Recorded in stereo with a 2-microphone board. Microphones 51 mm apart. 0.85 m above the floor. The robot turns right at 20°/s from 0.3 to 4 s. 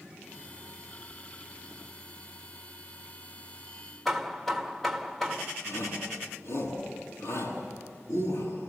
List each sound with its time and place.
4.0 s hammering: 5° left (ahead or behind), 1.7 m
5.7 s a shout: 65° left (ahead or behind), 8.5 m